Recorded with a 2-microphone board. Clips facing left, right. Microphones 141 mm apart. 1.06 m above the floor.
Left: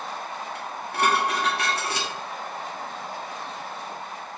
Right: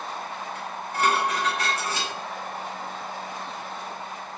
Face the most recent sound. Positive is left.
turn(degrees=80)